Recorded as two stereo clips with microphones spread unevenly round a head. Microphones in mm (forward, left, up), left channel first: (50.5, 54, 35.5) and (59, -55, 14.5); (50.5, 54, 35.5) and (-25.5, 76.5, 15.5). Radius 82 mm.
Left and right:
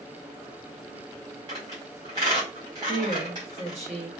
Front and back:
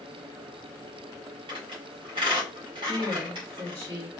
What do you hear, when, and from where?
1.5 s a squeak: 150° right, 1.7 m
2.9 s a woman speaking: 125° right, 1.1 m